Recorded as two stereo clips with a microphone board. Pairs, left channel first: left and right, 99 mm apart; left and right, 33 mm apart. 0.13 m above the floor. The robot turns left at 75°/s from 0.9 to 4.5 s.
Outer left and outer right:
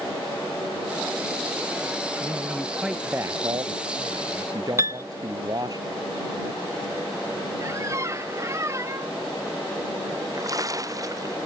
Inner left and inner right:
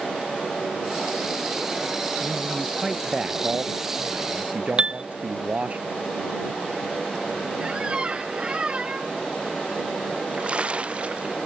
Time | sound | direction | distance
2.2 | a man speaking | 45° left | ?
4.8 | a piano | 30° right (ahead or behind) | ?
7.6 | a squeak | 30° right (ahead or behind) | ?
10.1 | a splash | 35° right (ahead or behind) | ?